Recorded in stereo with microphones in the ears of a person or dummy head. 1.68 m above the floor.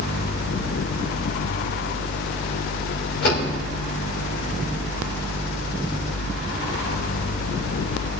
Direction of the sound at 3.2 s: 55° left (ahead or behind).